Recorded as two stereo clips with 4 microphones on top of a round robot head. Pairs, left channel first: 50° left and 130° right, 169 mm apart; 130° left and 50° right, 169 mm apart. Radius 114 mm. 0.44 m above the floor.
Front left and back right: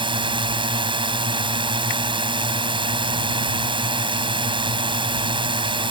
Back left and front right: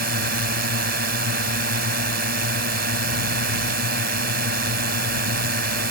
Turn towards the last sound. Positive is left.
turn(degrees=-70)